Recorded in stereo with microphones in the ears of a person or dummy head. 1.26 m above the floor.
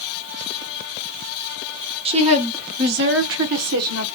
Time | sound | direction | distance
2.0 | a woman speaking | 30° right (ahead or behind) | 1.0 m